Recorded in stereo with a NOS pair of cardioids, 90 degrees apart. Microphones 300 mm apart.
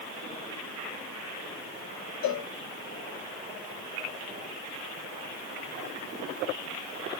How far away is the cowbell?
About 1.3 m.